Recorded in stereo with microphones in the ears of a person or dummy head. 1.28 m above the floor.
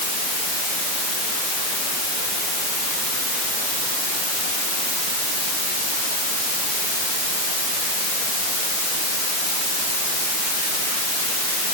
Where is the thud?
I don't hear a thud.